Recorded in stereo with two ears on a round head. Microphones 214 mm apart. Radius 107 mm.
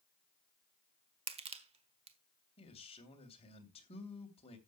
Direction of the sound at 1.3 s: 25° right (ahead or behind).